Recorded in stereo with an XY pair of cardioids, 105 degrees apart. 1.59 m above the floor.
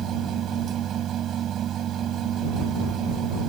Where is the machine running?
65° right.